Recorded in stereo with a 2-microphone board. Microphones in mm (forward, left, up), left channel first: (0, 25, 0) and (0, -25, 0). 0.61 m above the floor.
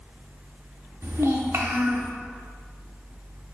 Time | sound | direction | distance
1.0 | a child speaking | 55° right (ahead or behind) | 0.6 m